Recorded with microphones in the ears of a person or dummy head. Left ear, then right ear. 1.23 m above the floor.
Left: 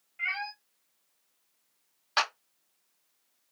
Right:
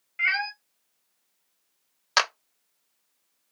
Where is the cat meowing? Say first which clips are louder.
Right 8 dB; 65° right (ahead or behind), 0.9 m.